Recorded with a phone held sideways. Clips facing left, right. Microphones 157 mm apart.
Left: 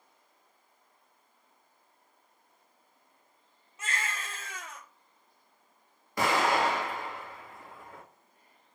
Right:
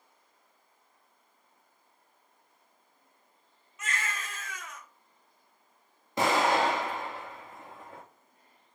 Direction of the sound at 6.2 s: 25° right (ahead or behind).